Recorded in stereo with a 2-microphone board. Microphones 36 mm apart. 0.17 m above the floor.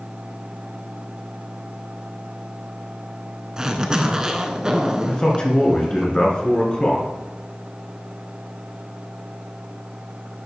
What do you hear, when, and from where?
3.6 s a zipper: 20° right (ahead or behind), 0.6 m
5.1 s a man speaking: 25° left (ahead or behind), 1.8 m